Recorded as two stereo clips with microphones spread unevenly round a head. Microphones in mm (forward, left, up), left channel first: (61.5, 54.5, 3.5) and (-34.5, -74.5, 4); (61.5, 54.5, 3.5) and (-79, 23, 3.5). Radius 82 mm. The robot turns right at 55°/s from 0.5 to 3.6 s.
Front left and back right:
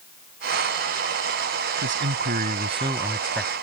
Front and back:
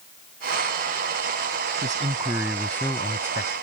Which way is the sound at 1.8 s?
120° right.